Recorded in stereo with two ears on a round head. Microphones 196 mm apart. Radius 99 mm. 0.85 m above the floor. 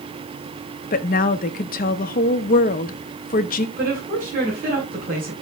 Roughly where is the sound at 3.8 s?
Right.